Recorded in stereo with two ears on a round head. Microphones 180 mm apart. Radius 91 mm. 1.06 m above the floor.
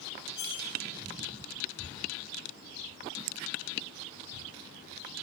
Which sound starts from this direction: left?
Cutlery clinking, at 0.3 s.